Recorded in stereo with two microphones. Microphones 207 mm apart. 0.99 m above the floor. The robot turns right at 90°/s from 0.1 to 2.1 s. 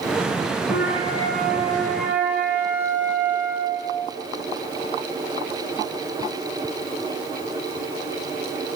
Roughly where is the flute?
Ahead left.